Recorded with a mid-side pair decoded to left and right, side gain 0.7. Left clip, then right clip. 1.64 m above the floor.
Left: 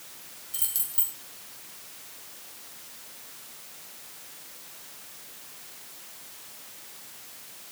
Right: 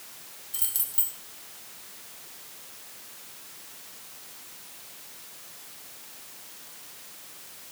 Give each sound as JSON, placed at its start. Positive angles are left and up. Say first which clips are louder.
{"t": 0.5, "sound": "keys jangling", "louder": "even", "azimuth_deg": -5, "distance_m": 1.7}